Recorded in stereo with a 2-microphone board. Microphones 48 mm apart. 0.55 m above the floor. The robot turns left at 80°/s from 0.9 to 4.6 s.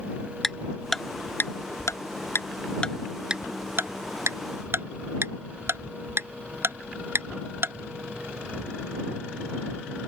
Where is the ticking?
5° left (ahead or behind); by 7.8 s 60° right (ahead or behind).